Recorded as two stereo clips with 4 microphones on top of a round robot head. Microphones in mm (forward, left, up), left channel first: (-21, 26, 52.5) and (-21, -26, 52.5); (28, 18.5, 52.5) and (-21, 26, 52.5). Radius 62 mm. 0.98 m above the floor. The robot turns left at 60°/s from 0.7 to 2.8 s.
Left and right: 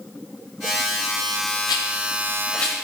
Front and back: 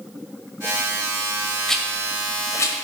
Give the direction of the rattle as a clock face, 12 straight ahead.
10 o'clock.